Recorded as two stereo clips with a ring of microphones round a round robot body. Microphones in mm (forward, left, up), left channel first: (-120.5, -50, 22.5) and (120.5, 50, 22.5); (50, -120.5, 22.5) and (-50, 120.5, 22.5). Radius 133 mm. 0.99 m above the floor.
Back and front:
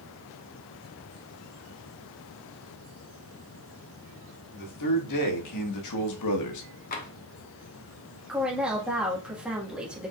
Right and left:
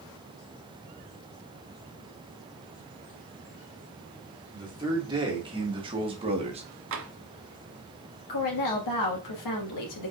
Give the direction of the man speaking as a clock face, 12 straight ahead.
6 o'clock.